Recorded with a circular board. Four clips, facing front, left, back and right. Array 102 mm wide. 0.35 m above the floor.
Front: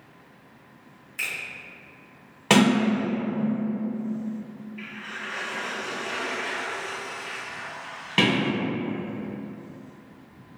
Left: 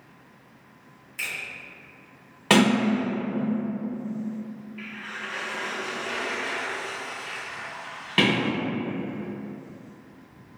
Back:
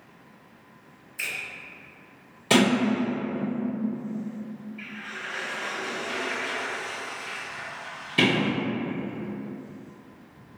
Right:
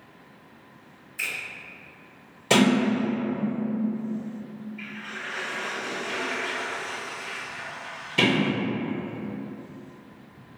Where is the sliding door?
40° left, 1.2 m.